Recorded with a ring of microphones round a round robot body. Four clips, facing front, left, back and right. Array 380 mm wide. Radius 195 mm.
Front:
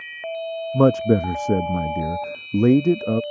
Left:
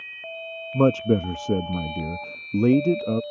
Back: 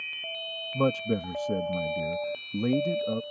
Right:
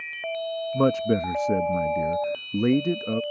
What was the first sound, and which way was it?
A man speaking, 15° left.